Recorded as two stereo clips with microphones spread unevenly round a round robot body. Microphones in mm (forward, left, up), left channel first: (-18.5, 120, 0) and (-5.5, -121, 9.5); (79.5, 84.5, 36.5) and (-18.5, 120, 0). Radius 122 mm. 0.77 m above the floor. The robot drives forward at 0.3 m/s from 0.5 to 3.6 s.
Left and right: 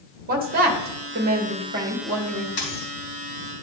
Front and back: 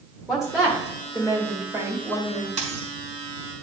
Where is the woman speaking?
135° right, 1.3 m; by 2.5 s 150° right, 1.7 m.